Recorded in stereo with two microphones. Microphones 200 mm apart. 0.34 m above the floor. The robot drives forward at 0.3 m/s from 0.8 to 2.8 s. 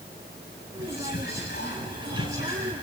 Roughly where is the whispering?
Left.